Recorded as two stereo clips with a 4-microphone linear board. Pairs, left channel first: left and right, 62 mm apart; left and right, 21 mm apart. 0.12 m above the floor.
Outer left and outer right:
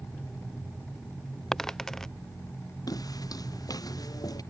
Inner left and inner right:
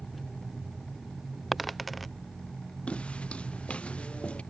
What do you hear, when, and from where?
1.5 s a dropped coin: 10° left (ahead or behind)
2.9 s footsteps: 85° left